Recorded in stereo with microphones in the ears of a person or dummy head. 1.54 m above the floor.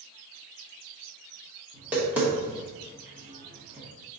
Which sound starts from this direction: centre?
Tapping, at 1.7 s.